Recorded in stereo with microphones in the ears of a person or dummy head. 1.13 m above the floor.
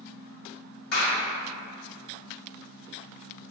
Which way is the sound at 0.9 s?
75° left (ahead or behind).